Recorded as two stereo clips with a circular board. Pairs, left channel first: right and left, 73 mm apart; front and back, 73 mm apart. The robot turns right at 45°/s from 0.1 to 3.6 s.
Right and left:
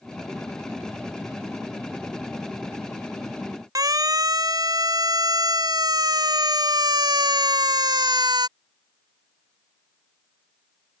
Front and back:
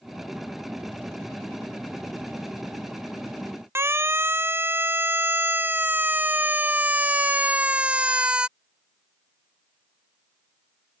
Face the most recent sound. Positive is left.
turn(degrees=105)